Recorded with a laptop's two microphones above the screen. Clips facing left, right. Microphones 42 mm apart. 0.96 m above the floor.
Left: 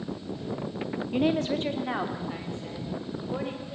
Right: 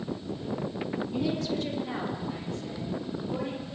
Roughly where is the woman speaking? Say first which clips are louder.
Left 6 dB; left.